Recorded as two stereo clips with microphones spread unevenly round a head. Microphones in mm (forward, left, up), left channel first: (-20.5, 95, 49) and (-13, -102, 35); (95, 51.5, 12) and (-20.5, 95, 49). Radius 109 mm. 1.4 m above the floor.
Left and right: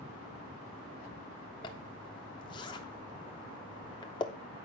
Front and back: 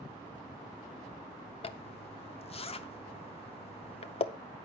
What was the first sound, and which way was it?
A zipper, 25° left.